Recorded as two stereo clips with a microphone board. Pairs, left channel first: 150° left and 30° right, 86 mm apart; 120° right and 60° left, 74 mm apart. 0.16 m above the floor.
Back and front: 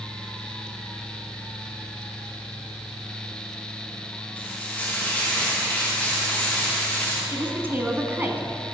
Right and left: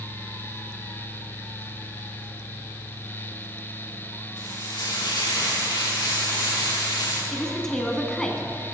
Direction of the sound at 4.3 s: 135° right.